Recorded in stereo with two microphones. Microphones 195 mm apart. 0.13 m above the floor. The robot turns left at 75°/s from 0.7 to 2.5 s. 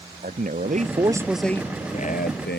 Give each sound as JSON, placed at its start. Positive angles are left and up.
{"t": 0.2, "sound": "a man speaking", "azimuth_deg": -130}